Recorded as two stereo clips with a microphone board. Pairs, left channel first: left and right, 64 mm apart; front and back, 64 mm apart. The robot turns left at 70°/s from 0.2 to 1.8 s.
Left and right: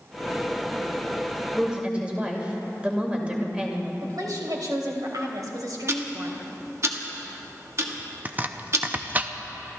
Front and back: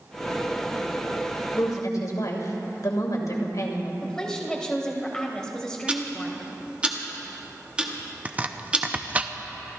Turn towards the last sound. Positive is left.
turn(degrees=-130)